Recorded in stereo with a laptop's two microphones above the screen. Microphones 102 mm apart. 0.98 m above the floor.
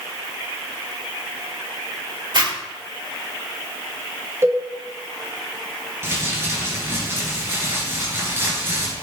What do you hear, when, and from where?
2.3 s a zipper: 50° right (ahead or behind), 2.0 m
4.4 s a cowbell: 30° right (ahead or behind), 1.9 m
6.0 s crumpling: 25° right (ahead or behind), 2.5 m